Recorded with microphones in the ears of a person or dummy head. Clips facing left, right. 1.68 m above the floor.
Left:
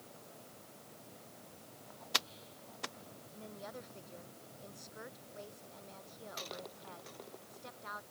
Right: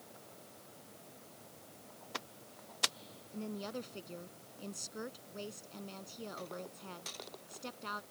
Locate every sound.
3.3 s a woman speaking: 50° right (ahead or behind)